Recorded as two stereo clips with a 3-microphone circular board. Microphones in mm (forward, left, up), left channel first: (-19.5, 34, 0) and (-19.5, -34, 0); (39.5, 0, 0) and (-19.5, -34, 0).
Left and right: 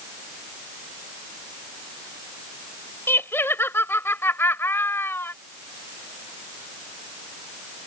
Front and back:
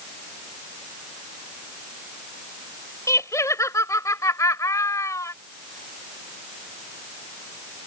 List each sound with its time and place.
3.1 s laughter: 45° left